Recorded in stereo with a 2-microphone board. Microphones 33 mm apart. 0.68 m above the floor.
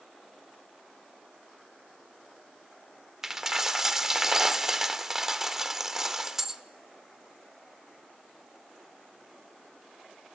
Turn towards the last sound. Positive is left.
turn(degrees=-15)  # may be behind; listen again after turning